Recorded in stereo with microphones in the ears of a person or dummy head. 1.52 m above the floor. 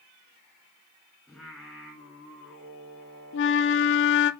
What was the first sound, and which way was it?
Singing, centre (ahead or behind).